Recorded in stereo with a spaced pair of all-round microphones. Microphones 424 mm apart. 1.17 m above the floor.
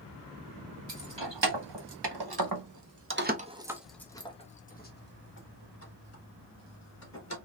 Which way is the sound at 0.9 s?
90° right.